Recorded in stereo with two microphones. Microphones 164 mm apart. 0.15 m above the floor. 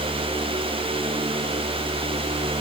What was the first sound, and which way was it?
Only background noise.